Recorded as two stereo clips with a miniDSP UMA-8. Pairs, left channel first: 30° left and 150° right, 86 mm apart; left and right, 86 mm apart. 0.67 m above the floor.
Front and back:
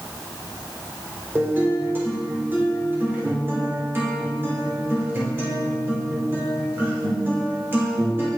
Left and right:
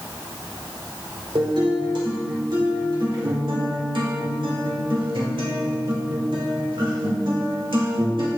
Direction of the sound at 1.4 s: 85° right.